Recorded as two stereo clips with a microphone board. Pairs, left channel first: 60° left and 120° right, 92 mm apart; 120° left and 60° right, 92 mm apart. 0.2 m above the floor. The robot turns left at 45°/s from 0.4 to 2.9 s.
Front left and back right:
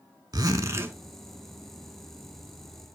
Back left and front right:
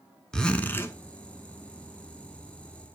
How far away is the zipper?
About 0.6 m.